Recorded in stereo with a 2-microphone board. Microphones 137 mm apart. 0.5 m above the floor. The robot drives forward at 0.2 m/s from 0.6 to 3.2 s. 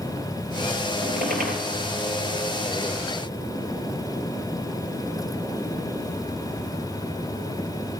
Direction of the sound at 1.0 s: 80° right.